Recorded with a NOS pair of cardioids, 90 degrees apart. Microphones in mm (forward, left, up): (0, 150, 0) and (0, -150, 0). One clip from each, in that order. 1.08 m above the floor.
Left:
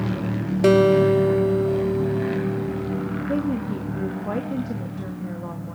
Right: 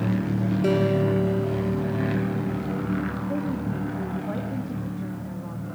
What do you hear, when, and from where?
0.6 s a guitar: 65° left, 2.5 m
3.3 s a woman speaking: 45° left, 2.5 m